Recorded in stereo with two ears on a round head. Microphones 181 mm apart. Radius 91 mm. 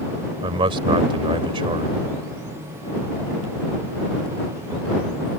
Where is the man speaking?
25° right (ahead or behind).